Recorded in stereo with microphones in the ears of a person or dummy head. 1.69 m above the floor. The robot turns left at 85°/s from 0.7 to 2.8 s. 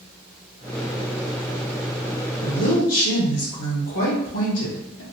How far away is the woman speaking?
About 2.0 m.